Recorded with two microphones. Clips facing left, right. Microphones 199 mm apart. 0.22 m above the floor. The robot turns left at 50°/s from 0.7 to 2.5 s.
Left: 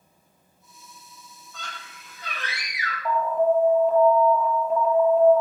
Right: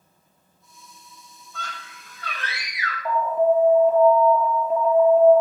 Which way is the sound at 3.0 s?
Centre (ahead or behind).